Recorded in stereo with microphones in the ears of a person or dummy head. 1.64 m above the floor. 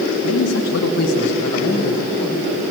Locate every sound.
0.2 s a man speaking: 70° left (ahead or behind), 1.7 m; by 2.7 s centre (ahead or behind), 2.5 m